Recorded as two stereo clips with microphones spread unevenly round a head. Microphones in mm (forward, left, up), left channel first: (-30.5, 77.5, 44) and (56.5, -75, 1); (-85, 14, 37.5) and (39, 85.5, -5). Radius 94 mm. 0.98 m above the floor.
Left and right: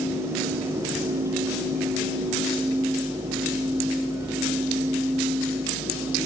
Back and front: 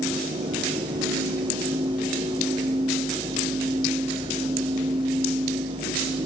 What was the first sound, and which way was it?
Only background noise.